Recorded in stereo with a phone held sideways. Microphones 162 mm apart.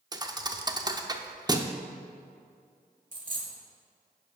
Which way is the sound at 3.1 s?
55° right (ahead or behind).